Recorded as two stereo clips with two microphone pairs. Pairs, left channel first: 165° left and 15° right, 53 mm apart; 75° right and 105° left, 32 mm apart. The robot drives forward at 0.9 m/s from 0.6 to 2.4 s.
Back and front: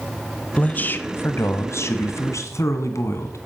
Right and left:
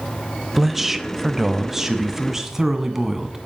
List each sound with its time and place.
0.6 s a man speaking: straight behind, 0.9 m